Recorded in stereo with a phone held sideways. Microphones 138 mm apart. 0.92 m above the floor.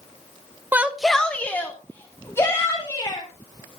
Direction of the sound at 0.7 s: 15° right (ahead or behind).